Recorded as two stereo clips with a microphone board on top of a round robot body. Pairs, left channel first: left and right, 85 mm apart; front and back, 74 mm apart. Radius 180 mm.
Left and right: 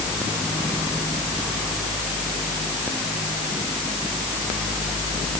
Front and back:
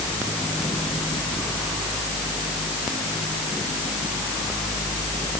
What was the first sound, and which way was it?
Only background noise.